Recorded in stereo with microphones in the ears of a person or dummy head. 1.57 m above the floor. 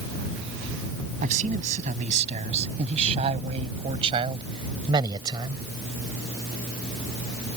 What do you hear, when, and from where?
1.2 s a man speaking: 40° right (ahead or behind); by 5.6 s 20° right (ahead or behind)